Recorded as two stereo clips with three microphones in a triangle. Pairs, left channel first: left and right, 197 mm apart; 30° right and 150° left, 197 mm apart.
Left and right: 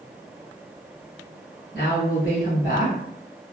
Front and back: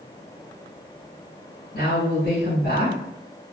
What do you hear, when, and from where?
1.7 s a woman speaking: 55° right, 1.5 m